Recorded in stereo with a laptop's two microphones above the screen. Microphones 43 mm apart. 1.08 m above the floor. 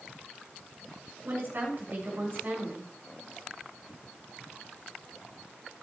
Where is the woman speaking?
55° right (ahead or behind), 6 m.